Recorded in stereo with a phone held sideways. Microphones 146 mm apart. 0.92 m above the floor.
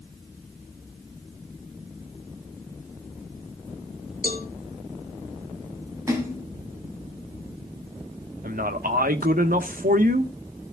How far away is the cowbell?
About 2.5 m.